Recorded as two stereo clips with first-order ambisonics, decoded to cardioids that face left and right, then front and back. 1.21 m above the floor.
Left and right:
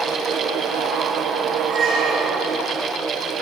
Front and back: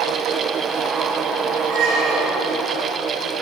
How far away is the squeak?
About 2.5 m.